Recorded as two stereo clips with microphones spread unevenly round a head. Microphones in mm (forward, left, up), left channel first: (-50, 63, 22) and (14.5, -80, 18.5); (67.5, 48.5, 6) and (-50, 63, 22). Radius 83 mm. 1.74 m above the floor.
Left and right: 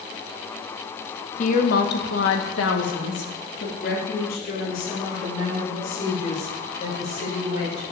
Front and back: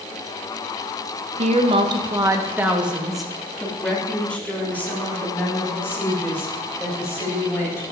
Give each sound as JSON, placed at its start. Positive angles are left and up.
{"t": 1.4, "sound": "a woman speaking", "azimuth_deg": 155, "distance_m": 1.5}